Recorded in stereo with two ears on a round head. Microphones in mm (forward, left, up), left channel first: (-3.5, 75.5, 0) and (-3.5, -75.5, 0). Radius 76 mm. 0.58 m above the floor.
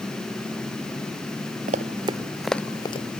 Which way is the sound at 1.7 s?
45° right (ahead or behind).